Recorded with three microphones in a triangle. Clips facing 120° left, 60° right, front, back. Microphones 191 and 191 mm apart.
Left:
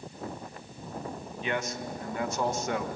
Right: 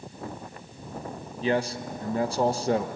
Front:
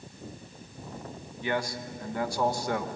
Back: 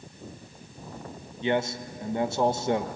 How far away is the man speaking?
About 1.1 m.